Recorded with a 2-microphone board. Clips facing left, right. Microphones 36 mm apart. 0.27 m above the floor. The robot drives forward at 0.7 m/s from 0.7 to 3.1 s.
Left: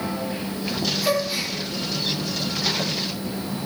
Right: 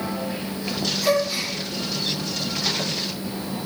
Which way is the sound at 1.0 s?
10° left (ahead or behind).